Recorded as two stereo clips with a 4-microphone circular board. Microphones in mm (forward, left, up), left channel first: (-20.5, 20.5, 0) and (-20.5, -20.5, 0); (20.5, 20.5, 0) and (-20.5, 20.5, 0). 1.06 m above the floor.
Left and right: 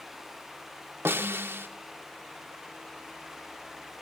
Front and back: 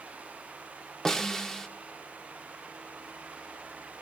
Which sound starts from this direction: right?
A snare drum, at 1.1 s.